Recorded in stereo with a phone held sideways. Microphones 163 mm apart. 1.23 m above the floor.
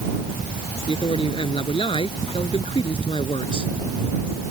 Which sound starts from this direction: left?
A man speaking, at 0.9 s.